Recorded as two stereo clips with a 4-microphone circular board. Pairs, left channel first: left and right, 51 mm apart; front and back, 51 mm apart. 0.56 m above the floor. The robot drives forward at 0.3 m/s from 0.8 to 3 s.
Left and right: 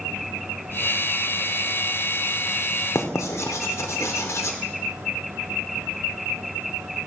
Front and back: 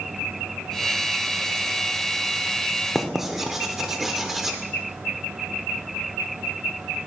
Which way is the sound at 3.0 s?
95° left.